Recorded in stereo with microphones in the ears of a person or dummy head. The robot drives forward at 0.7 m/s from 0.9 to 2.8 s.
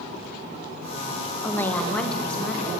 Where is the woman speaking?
15° left (ahead or behind), 0.6 m; by 2.7 s 5° left (ahead or behind), 1.4 m.